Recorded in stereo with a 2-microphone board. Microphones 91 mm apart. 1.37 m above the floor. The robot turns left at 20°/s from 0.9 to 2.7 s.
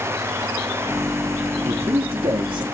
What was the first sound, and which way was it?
A man speaking, 85° right.